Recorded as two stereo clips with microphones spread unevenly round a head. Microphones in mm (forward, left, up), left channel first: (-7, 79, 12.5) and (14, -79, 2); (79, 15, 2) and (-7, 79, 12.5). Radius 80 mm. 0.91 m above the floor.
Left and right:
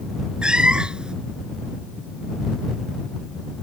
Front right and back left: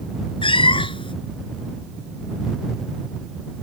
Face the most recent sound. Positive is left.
turn(degrees=5)